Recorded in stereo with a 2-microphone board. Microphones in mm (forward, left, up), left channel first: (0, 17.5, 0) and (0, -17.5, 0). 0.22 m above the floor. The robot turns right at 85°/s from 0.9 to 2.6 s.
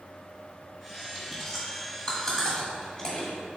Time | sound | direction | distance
1.1 | chewing | 5° right (ahead or behind) | 1.5 m